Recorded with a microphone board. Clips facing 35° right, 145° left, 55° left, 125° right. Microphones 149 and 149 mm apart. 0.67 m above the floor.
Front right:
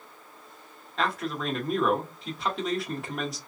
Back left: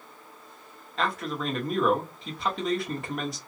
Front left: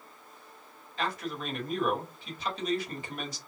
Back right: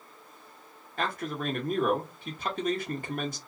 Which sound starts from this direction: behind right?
A man speaking, at 1.0 s.